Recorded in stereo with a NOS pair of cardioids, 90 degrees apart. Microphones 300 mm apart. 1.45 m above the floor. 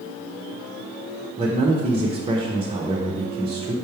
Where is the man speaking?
20° right, 1.1 m.